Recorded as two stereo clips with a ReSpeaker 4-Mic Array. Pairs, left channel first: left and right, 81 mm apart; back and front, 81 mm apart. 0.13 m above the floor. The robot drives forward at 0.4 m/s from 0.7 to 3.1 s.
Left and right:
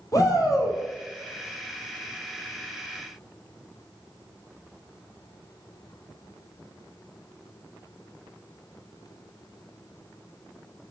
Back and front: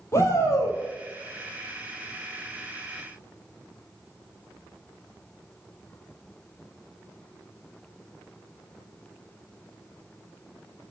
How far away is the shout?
About 3.5 m.